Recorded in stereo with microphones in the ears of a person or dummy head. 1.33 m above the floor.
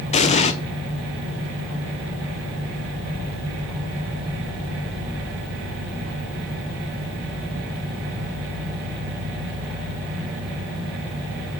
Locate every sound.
0.1 s an explosion: 30° left (ahead or behind), 0.7 m